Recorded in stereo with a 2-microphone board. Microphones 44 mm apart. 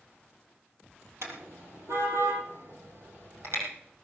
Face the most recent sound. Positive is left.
turn(degrees=-85)